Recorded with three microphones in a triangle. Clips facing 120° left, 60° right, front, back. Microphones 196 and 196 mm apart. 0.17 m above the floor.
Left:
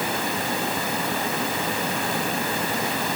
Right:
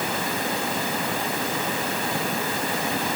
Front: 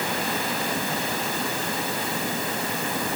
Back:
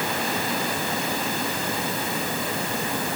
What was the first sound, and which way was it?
Only background noise.